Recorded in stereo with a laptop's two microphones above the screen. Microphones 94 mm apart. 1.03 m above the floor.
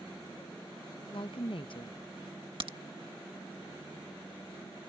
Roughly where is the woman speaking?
Left.